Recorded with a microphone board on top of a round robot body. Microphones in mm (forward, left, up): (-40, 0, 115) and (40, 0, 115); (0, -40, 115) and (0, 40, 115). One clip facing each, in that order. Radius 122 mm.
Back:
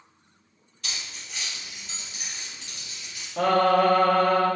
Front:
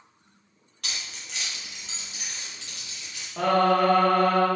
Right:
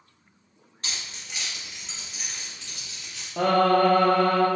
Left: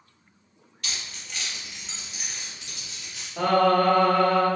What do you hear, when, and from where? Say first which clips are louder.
0.8 s keys jangling: even, even; 30° right, 1.1 m; by 3.3 s 20° left, 1.8 m
3.4 s singing: back 1 dB, even; 90° right, 1.2 m